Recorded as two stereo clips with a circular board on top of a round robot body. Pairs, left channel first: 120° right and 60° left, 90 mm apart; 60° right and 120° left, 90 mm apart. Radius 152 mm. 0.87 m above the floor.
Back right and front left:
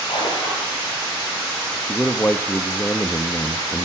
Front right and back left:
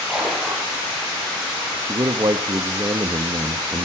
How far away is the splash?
About 8 m.